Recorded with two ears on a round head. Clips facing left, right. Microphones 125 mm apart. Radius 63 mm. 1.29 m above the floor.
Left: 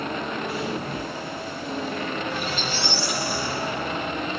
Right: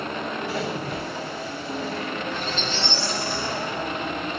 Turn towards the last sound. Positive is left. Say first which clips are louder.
# even
turn(degrees=10)  # may be behind; listen again after turning